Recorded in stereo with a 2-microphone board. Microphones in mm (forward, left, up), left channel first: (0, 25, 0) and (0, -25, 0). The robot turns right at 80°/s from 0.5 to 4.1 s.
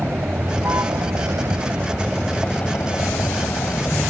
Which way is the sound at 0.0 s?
140° right.